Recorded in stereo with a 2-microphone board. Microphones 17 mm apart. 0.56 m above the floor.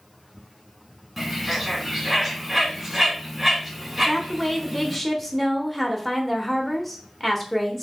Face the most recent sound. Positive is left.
turn(degrees=0)  # may be behind; listen again after turning